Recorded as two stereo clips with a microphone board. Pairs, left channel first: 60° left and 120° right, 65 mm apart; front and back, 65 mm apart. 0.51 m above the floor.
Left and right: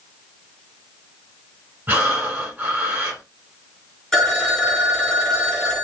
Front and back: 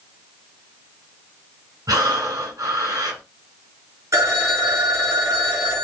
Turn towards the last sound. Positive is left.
turn(degrees=140)